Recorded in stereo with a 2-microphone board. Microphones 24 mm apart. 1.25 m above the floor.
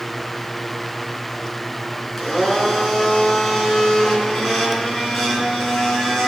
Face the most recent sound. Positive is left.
turn(degrees=10)  # may be behind; listen again after turning